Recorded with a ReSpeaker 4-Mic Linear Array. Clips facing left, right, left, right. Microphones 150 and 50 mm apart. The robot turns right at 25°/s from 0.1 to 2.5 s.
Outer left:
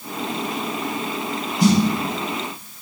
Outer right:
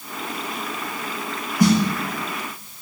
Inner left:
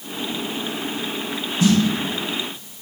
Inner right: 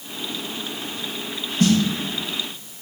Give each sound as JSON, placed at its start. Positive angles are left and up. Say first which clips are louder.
{"t": 1.6, "sound": "a snare drum", "louder": "even, even", "side_deg": -60, "distance_m": 1.9}